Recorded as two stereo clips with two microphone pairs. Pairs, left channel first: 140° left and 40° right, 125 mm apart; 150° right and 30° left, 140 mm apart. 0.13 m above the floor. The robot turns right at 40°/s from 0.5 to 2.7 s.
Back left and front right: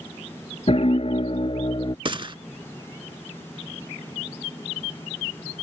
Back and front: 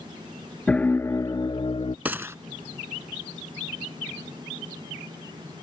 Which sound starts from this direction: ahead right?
A gunshot, at 2.0 s.